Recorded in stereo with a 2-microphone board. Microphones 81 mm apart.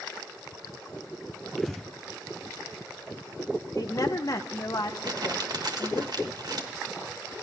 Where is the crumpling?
60° right (ahead or behind), 1.5 m.